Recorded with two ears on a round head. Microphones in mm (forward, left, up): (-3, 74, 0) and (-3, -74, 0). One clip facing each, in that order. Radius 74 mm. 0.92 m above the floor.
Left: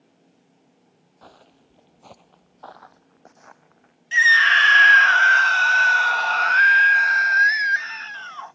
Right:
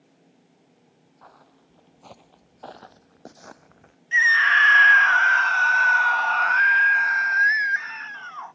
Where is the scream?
40° left (ahead or behind).